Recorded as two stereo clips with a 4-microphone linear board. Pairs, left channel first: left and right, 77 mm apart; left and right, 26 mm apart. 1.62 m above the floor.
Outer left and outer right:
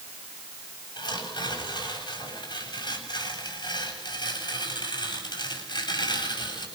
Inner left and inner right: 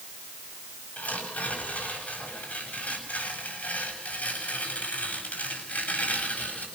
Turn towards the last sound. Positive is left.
turn(degrees=80)